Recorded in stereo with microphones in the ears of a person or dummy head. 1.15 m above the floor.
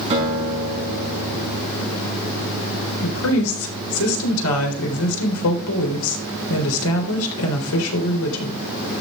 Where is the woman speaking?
85° left, 3.5 m.